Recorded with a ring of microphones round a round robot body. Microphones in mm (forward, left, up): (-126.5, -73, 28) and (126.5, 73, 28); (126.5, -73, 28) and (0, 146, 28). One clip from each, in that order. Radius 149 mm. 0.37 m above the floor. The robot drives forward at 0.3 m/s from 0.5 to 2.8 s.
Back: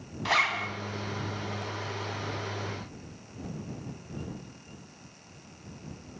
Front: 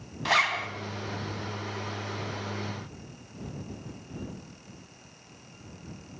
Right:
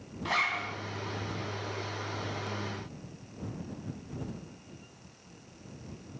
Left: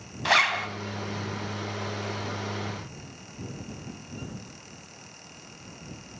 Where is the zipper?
110° left, 1.5 m.